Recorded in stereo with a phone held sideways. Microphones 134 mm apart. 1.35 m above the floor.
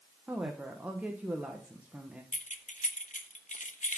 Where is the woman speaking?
10° right (ahead or behind), 1.0 m.